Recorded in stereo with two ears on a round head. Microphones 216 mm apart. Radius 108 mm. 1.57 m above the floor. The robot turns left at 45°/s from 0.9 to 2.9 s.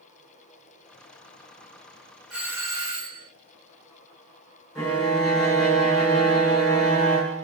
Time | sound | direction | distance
2.3 | a doorbell | centre (ahead or behind) | 1.0 m
4.8 | a violin | 10° left (ahead or behind) | 1.6 m